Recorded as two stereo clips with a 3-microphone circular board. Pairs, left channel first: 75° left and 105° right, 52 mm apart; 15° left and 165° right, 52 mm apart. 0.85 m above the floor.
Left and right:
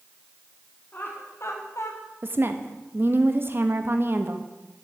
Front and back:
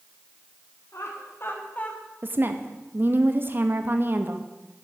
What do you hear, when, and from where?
0.9 s laughter: 25° left, 1.8 m; by 2.1 s 85° left, 1.7 m
2.2 s a woman speaking: 130° right, 0.8 m